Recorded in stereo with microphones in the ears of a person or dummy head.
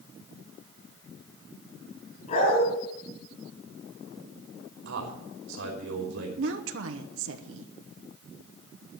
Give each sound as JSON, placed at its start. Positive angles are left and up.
{"t": 2.3, "sound": "a dog barking", "side_deg": 50, "distance_m": 4.0}
{"t": 4.8, "sound": "a man speaking", "side_deg": -80, "distance_m": 3.0}
{"t": 6.4, "sound": "a woman speaking", "side_deg": -65, "distance_m": 1.1}